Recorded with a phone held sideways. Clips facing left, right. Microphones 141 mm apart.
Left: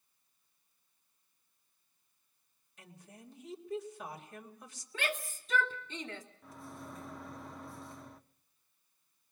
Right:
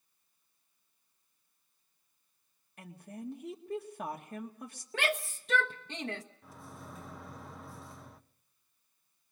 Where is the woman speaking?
55° right (ahead or behind), 2.0 m.